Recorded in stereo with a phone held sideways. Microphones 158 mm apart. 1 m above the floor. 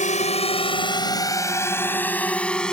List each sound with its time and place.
0.0 s a drone: 50° left (ahead or behind); by 2.7 s 5° left (ahead or behind)